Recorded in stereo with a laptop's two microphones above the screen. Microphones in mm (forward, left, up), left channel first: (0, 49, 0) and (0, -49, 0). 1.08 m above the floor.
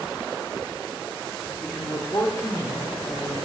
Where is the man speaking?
15° left (ahead or behind), 2.5 m; by 3.4 s 30° left (ahead or behind), 3.5 m.